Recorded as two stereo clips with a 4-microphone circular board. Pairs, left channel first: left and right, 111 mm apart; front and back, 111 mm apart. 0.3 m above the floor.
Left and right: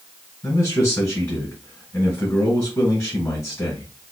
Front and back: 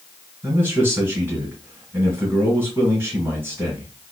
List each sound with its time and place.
0.4 s a man speaking: 135° left, 1.7 m